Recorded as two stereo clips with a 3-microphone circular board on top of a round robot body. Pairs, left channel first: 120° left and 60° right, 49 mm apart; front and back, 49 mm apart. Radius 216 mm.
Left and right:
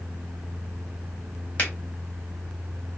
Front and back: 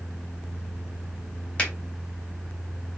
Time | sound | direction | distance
1.6 | a finger snap | 70° left | 1.9 m